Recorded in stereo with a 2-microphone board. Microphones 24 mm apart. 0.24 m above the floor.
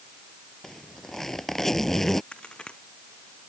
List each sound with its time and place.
0.6 s a zipper: 15° left (ahead or behind)
2.3 s a crack: 45° left (ahead or behind)